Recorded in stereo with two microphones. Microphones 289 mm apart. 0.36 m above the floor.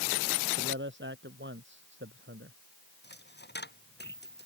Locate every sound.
0.6 s a man speaking: 40° right (ahead or behind)
3.0 s a dropped coin: 35° left (ahead or behind)